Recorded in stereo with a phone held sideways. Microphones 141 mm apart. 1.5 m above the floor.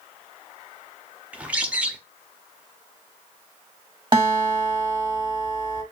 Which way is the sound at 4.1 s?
35° right (ahead or behind).